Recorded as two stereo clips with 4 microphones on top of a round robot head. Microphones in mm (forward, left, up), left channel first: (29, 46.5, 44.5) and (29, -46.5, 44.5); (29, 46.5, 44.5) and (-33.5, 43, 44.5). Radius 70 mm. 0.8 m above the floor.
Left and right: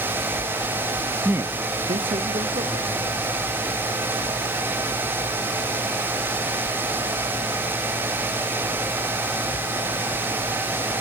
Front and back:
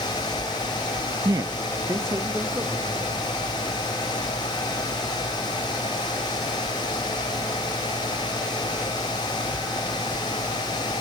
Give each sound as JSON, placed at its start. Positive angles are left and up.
{"t": 1.2, "sound": "a man speaking", "azimuth_deg": -165, "distance_m": 0.6}